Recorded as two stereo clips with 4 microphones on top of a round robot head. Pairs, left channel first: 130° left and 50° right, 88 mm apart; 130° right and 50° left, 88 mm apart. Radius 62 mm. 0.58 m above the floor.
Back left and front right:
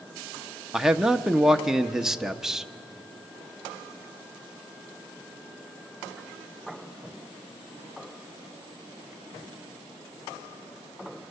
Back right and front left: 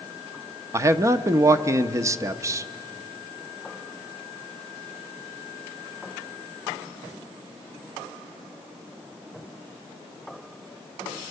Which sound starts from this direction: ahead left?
A man speaking, at 0.7 s.